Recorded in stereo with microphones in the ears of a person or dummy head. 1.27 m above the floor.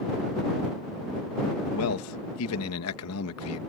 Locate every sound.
1.7 s a man speaking: 75° left (ahead or behind)